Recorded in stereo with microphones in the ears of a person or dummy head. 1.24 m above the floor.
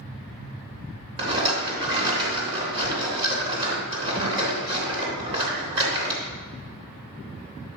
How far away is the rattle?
About 3 m.